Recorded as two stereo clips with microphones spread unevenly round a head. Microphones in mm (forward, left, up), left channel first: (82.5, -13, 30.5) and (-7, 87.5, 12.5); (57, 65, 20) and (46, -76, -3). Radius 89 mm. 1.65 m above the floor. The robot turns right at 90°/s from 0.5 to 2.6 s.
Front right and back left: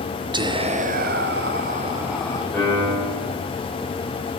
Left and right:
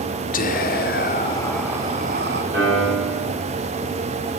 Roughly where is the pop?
No pop in this recording.